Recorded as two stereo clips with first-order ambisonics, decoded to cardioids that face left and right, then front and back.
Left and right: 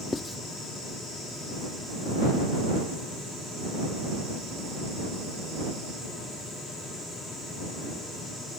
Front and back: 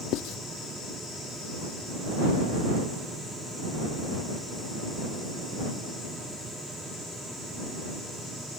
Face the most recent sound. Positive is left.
turn(degrees=15)